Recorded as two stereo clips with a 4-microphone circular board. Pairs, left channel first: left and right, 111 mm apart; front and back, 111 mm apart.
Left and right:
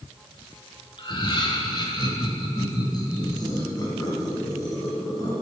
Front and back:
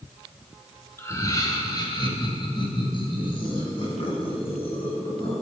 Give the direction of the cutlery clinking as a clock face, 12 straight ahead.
I don't hear cutlery clinking.